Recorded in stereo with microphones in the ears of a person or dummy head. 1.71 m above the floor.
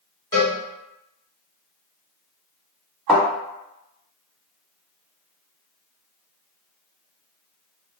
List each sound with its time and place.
0.3 s a cowbell: 20° left (ahead or behind), 1.1 m
3.1 s a thud: centre (ahead or behind), 1.9 m